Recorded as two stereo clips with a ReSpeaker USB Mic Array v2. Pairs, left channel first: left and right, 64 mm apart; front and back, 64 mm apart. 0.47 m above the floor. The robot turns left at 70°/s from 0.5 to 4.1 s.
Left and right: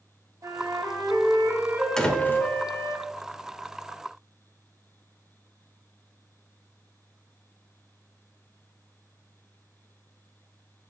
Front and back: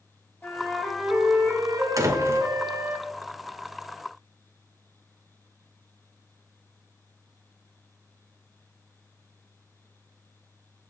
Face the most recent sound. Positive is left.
turn(degrees=20)